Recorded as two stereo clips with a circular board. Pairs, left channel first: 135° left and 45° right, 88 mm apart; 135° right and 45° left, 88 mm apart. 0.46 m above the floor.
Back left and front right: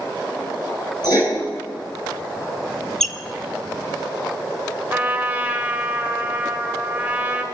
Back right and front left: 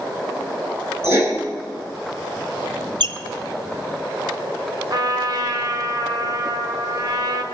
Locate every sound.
1.0 s writing: 100° left, 5 m
3.0 s a squeak: 50° left, 1.1 m
4.9 s a trumpet: 25° left, 1.6 m